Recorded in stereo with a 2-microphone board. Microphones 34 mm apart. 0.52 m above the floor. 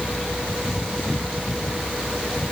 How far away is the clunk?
No clunk in this recording.